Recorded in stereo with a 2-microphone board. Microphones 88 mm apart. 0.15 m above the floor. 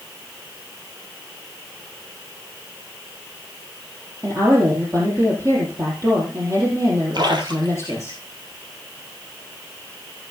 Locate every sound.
4.2 s a woman speaking: 40° right (ahead or behind), 4 m
7.1 s a splash: 55° right (ahead or behind), 2.5 m